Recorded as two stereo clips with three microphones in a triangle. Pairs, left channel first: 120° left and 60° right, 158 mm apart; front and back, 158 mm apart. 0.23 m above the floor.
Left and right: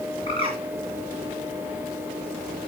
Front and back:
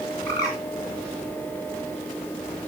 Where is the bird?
70° left, 4.5 m.